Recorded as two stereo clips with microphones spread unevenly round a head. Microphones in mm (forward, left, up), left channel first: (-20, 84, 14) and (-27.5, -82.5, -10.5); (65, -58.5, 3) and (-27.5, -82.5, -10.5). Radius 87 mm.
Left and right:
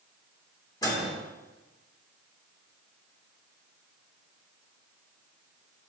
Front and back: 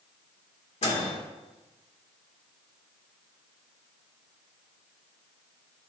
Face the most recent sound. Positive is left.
turn(degrees=15)